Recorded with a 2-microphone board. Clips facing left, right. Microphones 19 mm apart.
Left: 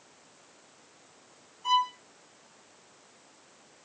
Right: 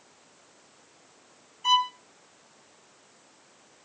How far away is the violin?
About 1.4 m.